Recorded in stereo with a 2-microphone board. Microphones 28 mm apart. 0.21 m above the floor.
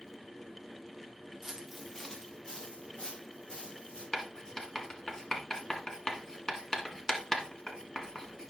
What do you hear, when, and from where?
1.4 s footsteps: 15° right (ahead or behind), 1.0 m; by 4.0 s 40° left (ahead or behind), 4.5 m
4.1 s writing: 25° left (ahead or behind), 1.4 m